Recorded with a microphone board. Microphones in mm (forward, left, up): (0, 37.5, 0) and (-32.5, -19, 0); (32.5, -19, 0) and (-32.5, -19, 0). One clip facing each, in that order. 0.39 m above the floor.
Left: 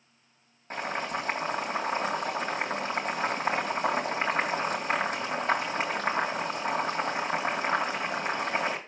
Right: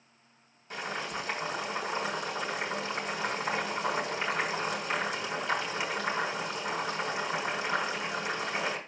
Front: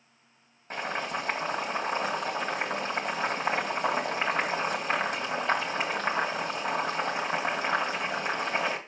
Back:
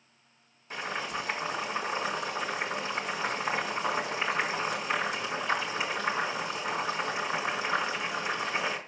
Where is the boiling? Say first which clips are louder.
Left 4 dB, front 2 dB; 25° left, 2.5 m.